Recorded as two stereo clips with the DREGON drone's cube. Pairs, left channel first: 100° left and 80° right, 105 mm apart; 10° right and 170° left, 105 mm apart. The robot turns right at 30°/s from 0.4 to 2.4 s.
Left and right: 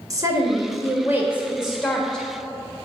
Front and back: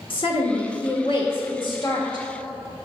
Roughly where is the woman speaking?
Ahead right.